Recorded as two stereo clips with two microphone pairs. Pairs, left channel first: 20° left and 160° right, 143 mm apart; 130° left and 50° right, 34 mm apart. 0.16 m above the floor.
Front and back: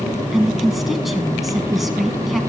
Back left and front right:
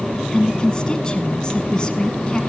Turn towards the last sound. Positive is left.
turn(degrees=110)